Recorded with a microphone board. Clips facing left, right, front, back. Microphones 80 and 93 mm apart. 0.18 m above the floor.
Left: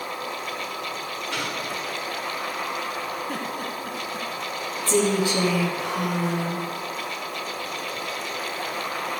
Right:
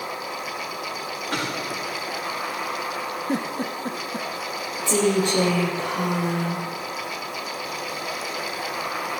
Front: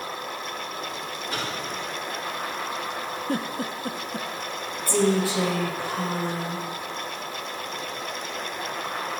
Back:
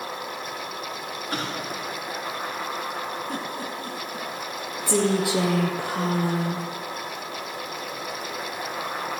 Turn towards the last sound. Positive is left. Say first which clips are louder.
# right 1 dB, even
turn(degrees=175)